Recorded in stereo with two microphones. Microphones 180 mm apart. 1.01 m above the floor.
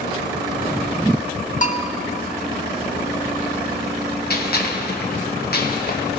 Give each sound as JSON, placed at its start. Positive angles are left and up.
{"t": 1.6, "sound": "a bell", "side_deg": 45, "distance_m": 0.8}
{"t": 4.3, "sound": "a gunshot", "side_deg": 60, "distance_m": 1.1}